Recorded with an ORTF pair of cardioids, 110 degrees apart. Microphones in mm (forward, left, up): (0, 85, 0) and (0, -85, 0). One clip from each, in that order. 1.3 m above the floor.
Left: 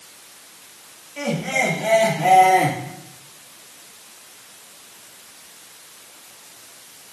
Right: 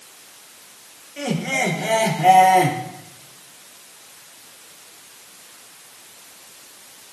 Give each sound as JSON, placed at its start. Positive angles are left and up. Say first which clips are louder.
{"t": 1.2, "sound": "laughter", "louder": "left 1 dB", "azimuth_deg": 5, "distance_m": 2.5}